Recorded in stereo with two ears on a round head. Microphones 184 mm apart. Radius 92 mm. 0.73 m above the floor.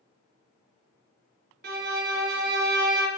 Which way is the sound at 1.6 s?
50° right (ahead or behind).